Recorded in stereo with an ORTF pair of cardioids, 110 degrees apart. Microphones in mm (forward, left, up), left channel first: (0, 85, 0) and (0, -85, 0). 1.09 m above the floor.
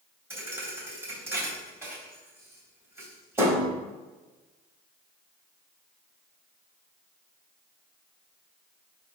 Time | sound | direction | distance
0.3 | a thud | 15° right | 3 m